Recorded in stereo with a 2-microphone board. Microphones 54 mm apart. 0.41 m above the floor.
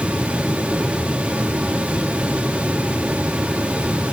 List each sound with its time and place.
Only background noise.